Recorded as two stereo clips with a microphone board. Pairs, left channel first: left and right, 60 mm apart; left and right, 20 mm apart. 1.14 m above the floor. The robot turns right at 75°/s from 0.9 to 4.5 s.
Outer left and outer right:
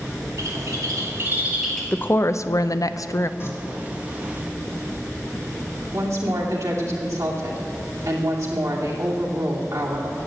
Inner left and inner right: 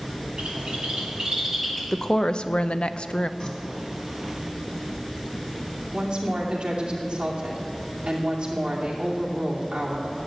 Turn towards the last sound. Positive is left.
turn(degrees=-75)  # may be behind; listen again after turning